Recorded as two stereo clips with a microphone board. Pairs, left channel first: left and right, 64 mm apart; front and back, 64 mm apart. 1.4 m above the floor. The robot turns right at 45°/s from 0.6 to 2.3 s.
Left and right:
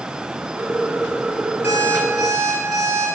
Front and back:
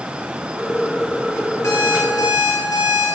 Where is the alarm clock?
35° right, 6.5 m; by 3.1 s 5° right, 6.5 m.